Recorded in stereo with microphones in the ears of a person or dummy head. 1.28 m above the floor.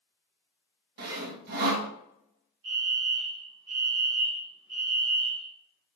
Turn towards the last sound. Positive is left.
turn(degrees=-65)  # may be behind; listen again after turning